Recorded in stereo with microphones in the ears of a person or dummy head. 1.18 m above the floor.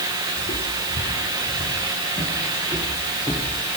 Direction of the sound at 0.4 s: 35° left (ahead or behind).